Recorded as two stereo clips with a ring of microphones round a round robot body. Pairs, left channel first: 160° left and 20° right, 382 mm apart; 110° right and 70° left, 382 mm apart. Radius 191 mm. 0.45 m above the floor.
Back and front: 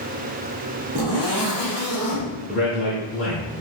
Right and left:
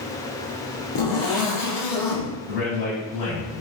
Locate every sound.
0.9 s a zipper: 75° right, 3.5 m
2.5 s a man speaking: 110° right, 3.5 m